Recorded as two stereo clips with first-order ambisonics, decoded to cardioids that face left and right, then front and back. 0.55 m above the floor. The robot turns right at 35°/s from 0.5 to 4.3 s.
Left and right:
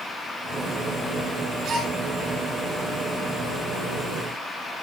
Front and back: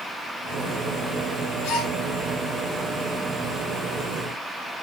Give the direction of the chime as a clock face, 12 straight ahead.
No chime in this recording.